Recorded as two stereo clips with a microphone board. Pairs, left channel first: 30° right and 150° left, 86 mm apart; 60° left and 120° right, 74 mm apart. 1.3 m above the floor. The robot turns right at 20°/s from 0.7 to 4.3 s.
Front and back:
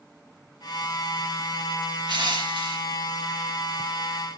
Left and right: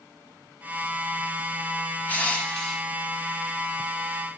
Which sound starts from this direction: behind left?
Crushing, at 2.1 s.